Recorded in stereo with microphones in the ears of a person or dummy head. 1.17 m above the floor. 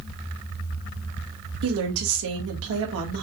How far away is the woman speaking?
About 1.7 m.